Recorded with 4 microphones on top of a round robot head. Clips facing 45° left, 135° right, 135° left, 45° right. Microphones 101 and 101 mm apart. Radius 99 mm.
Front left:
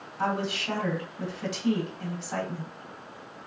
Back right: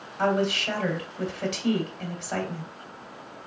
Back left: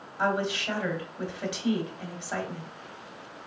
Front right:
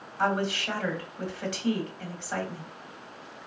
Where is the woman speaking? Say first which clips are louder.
Back right 5 dB, even; 150° right, 1.6 m.